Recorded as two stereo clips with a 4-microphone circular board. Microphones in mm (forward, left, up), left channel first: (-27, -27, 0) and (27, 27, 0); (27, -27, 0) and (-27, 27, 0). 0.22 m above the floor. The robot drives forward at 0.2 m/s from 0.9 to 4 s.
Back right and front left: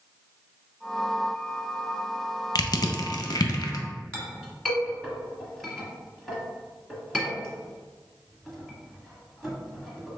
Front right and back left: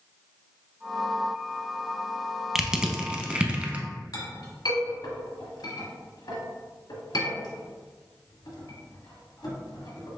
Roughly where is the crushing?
Behind right.